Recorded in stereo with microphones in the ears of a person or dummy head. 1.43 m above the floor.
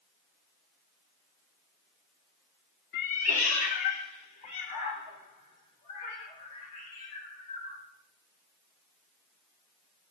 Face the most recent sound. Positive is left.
turn(degrees=25)  # may be behind; listen again after turning